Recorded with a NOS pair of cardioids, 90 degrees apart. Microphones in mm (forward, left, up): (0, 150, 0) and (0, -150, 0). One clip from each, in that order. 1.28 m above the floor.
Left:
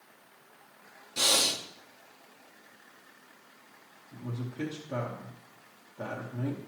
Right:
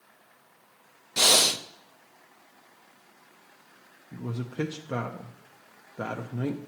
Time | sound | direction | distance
1.2 | breathing | 35° right | 0.7 m
4.1 | a man speaking | 50° right | 0.9 m